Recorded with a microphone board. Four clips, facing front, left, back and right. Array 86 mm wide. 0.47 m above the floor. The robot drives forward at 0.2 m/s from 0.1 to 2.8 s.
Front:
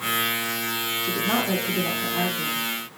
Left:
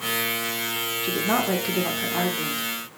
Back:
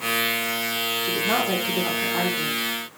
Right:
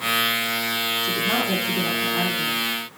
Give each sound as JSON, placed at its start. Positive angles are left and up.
{"t": 1.0, "sound": "a woman speaking", "azimuth_deg": 100, "distance_m": 0.8}